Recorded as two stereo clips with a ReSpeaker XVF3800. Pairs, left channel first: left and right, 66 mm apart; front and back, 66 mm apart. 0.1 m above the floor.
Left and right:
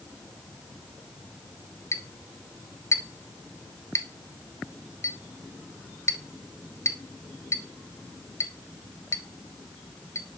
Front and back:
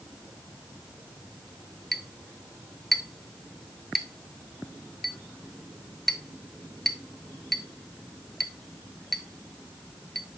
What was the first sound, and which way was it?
A clink, 85° left.